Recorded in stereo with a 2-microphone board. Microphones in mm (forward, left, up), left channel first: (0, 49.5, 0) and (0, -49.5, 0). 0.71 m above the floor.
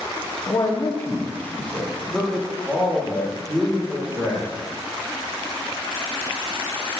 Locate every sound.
0.5 s a man speaking: 35° left (ahead or behind), 0.9 m; by 4.5 s 20° right (ahead or behind), 2 m